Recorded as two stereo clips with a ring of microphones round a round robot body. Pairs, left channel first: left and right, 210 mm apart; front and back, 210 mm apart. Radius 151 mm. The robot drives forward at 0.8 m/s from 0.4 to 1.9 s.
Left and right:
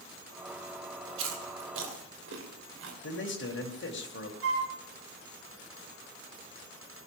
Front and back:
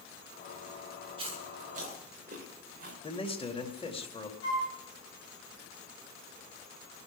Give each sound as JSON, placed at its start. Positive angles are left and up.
{"t": 1.2, "sound": "chewing", "azimuth_deg": -110, "distance_m": 2.5}
{"t": 3.0, "sound": "a man speaking", "azimuth_deg": 65, "distance_m": 2.5}
{"t": 4.4, "sound": "a flute", "azimuth_deg": -80, "distance_m": 3.5}